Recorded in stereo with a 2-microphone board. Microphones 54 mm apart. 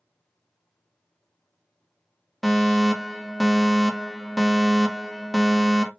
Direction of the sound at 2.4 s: Centre (ahead or behind).